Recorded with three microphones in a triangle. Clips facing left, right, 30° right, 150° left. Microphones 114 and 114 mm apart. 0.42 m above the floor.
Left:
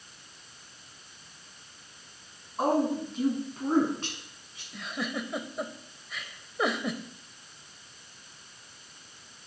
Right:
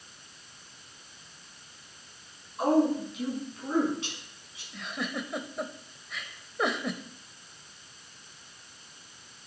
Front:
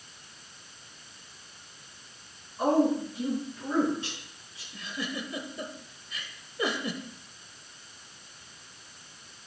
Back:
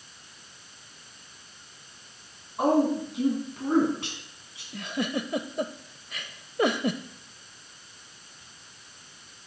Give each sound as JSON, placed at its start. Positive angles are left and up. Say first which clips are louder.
{"t": 2.6, "sound": "a woman speaking", "louder": "right 2 dB, back 1 dB", "azimuth_deg": 145, "distance_m": 5.0}
{"t": 4.7, "sound": "a giggle", "louder": "left 1 dB, back 6 dB", "azimuth_deg": 180, "distance_m": 0.7}